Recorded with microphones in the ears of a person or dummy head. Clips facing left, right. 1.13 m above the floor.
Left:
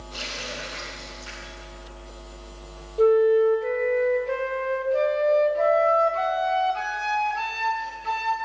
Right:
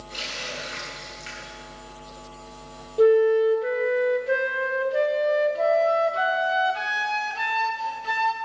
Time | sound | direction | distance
0.1 | a running tap | 30° right (ahead or behind) | 5.5 m
3.0 | a flute | 10° right (ahead or behind) | 0.9 m